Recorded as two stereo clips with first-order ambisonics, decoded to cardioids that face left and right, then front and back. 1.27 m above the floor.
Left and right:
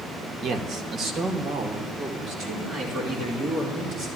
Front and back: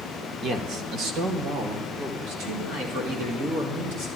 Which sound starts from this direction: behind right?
A man speaking, at 0.4 s.